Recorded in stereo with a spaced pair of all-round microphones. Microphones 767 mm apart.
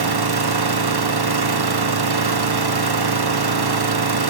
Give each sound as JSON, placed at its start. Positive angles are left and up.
{"t": 0.0, "sound": "an engine running", "side_deg": -35, "distance_m": 0.7}